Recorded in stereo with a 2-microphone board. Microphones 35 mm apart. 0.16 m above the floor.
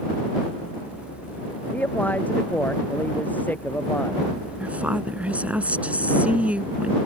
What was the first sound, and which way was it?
A man speaking, 50° left (ahead or behind).